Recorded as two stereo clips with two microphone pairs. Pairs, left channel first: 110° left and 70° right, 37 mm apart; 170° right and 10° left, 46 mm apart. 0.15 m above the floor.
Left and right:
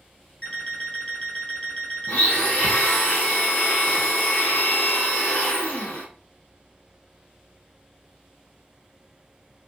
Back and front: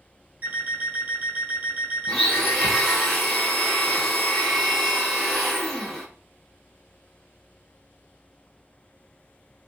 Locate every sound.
0.4 s an alarm clock: 60° left, 1.2 m
2.1 s a blender: 110° left, 0.9 m